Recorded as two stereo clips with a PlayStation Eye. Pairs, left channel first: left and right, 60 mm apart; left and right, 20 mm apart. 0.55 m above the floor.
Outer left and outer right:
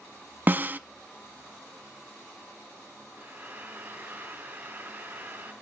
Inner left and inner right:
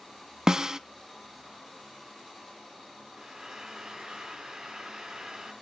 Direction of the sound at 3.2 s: 30° right (ahead or behind).